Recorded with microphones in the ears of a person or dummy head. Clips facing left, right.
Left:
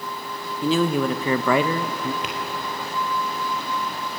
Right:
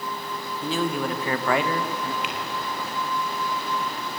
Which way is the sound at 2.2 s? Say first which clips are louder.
Left 1 dB; 30° left (ahead or behind).